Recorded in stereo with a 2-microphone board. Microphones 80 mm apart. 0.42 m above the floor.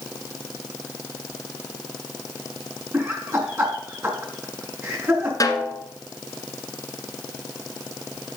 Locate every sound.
2.9 s laughter: 30° right (ahead or behind), 5 m
5.4 s a snare drum: 50° left (ahead or behind), 1.8 m